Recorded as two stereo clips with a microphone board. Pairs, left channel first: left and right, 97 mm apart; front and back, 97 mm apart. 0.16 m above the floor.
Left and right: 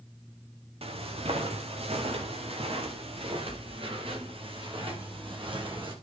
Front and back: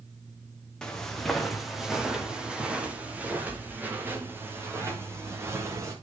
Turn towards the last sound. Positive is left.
turn(degrees=-120)